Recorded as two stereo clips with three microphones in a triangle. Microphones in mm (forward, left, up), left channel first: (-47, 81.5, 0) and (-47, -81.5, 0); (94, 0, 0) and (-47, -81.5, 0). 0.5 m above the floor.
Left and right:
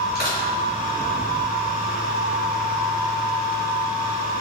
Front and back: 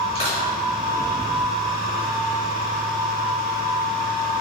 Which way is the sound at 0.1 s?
75° left.